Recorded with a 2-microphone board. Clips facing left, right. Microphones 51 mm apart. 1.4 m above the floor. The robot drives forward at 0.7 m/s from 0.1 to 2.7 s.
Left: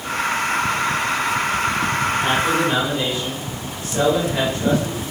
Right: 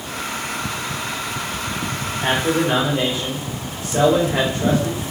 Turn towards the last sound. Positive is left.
turn(degrees=-30)  # may be behind; listen again after turning